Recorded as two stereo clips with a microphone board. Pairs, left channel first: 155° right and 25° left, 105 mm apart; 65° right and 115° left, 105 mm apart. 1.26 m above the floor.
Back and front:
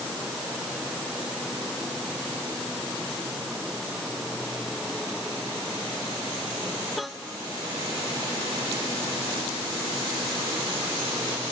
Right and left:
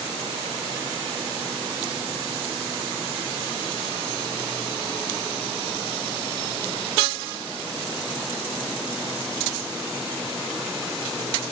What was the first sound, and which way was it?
Only background noise.